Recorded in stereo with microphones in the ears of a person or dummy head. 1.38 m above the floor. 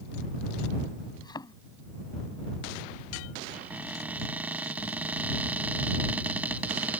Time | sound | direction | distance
1.2 | a thud | 25° left (ahead or behind) | ?
3.5 | a cupboard door | 10° right (ahead or behind) | ?